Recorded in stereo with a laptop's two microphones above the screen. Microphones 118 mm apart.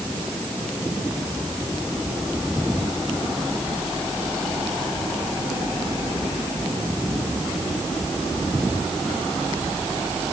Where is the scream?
No scream in this recording.